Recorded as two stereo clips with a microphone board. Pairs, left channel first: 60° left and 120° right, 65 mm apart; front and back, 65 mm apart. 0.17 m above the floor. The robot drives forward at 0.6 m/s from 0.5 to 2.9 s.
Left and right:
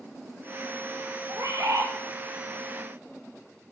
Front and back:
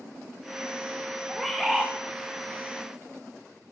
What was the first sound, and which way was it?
A bird, 85° right.